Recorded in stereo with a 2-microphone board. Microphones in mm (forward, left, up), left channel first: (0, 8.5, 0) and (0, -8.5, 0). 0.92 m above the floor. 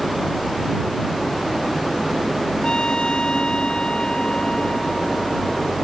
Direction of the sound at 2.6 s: 75° left (ahead or behind).